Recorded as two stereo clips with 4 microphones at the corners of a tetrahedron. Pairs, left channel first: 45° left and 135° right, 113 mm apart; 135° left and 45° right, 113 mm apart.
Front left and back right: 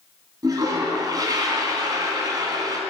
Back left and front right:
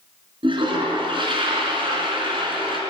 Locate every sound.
0.4 s a toilet flushing: 80° right, 3.5 m